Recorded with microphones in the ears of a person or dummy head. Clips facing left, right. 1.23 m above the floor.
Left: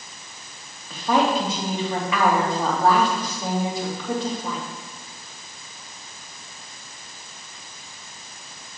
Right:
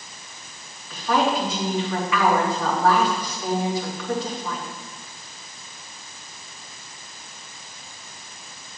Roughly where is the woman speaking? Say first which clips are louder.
Left 1 dB; left.